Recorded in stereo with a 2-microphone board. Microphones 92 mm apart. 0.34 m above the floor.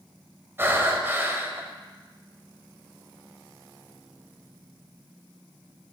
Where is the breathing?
25° right (ahead or behind), 1.0 m.